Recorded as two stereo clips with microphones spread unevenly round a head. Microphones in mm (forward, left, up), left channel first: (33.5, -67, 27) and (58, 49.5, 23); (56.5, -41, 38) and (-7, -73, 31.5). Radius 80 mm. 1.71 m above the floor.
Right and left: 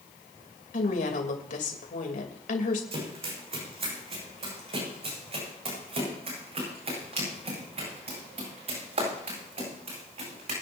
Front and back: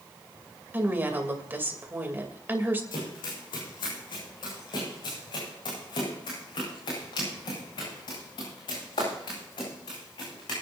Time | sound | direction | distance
0.7 | a woman speaking | 95° right | 3 m
2.9 | running footsteps | 40° left | 6 m